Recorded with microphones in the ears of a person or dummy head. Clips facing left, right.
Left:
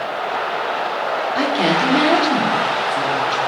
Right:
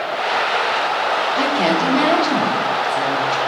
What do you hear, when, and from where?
1.4 s a woman speaking: 15° left (ahead or behind), 4 m